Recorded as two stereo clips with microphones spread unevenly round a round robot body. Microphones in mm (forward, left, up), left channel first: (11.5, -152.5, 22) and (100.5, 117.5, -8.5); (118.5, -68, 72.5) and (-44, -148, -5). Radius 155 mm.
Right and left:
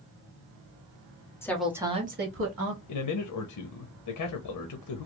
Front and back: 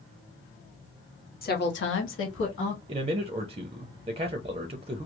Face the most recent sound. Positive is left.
turn(degrees=-125)